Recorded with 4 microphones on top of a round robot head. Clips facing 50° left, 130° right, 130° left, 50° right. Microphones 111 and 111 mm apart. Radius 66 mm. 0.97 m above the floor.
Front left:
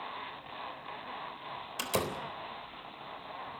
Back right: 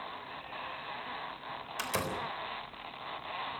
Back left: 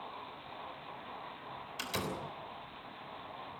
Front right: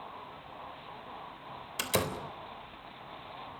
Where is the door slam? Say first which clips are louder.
Front left 2 dB, front right 7 dB; 15° right, 3.5 m.